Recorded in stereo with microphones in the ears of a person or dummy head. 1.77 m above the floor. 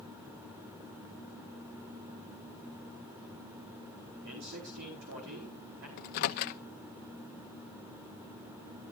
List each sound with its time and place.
4.2 s a man speaking: 60° right (ahead or behind), 4.5 m
6.0 s a microwave: 45° left (ahead or behind), 0.8 m